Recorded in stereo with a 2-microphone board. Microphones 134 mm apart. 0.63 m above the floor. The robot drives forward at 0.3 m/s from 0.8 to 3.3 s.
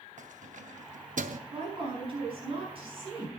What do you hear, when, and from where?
0.2 s keys jangling: 65° right (ahead or behind), 0.7 m; by 1.4 s 70° right (ahead or behind), 0.7 m
1.5 s a woman speaking: 40° right (ahead or behind), 6 m; by 3.3 s 45° right (ahead or behind), 5.5 m